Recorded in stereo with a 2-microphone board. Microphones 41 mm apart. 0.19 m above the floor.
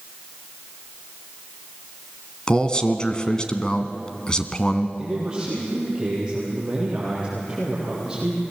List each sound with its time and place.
2.5 s a man speaking: 20° left (ahead or behind), 1.5 m
5.0 s a man speaking: 15° right (ahead or behind), 6.5 m